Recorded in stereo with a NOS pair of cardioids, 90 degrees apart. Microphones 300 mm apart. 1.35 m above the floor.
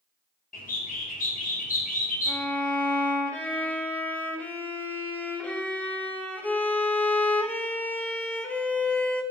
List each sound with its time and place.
0.5 s a bird: 25° left, 1.8 m
2.3 s a violin: 5° left, 1.3 m